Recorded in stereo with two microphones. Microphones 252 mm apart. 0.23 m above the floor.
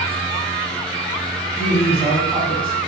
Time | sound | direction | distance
1.6 | a woman speaking | 5° left (ahead or behind) | 1.4 m